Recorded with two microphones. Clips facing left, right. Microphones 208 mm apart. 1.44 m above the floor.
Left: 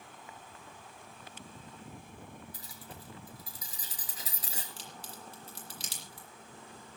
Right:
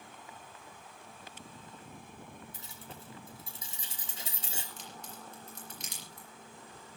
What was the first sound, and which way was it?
Keys jangling, 25° right (ahead or behind).